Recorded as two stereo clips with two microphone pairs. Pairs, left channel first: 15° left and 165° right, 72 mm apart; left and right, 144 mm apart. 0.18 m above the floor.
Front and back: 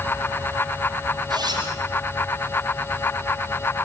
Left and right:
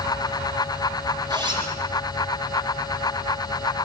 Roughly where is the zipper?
Behind right.